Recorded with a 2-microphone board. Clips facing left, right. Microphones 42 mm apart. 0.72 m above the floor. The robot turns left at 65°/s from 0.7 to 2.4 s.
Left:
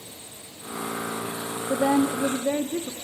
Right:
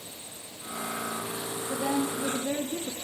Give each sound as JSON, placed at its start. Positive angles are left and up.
{"t": 1.7, "sound": "a woman speaking", "azimuth_deg": 95, "distance_m": 0.9}